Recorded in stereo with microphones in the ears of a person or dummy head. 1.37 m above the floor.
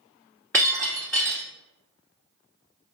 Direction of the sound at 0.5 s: 10° left (ahead or behind).